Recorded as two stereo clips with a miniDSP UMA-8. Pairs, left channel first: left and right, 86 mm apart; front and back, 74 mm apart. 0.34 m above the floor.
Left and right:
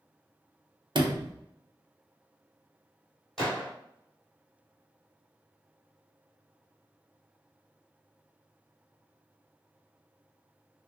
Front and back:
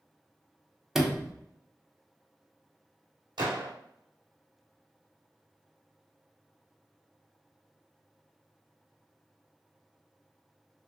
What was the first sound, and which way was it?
A sliding door, 95° right.